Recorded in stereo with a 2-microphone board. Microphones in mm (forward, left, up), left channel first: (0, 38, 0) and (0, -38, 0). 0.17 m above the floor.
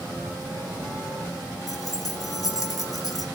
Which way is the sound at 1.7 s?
50° left (ahead or behind).